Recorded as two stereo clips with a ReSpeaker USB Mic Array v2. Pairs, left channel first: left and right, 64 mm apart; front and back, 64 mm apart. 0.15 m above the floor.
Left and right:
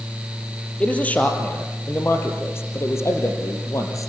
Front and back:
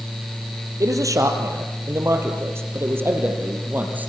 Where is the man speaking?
160° left, 4 m; by 4.1 s 120° left, 4.5 m.